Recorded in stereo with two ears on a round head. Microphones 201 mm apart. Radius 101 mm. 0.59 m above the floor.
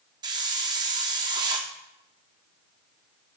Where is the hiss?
20° right (ahead or behind), 0.6 m.